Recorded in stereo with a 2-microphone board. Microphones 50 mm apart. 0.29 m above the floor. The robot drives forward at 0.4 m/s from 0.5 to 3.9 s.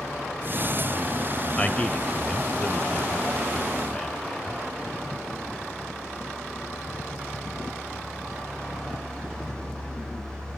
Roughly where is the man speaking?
Left.